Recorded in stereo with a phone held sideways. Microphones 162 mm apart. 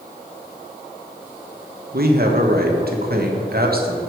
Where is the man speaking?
70° right (ahead or behind), 1.4 m.